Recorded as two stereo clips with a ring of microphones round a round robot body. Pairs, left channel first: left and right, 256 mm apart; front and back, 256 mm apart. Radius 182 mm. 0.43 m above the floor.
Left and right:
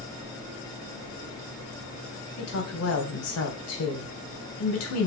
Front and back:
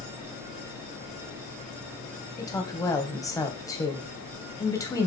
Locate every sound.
2.4 s a woman speaking: 75° left, 2.5 m